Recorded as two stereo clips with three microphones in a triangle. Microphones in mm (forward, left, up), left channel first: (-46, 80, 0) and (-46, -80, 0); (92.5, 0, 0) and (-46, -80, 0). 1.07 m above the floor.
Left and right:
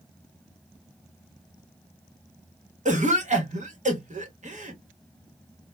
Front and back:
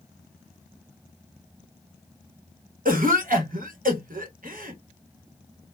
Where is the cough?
125° right, 0.9 m.